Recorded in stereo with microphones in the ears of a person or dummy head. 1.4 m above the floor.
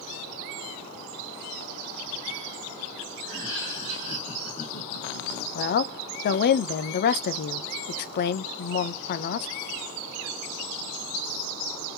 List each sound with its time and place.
3.2 s laughter: centre (ahead or behind), 1.2 m; by 5.5 s 60° left (ahead or behind), 1.7 m
5.5 s a woman speaking: 55° left (ahead or behind), 0.6 m